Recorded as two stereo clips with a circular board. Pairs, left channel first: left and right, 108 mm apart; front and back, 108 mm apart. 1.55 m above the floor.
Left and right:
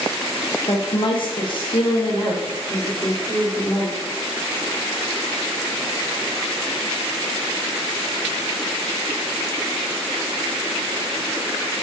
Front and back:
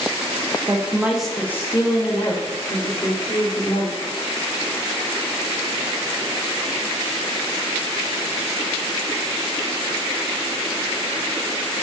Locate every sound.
0.7 s a woman speaking: 130° left, 0.6 m; by 4.0 s 20° left, 1.7 m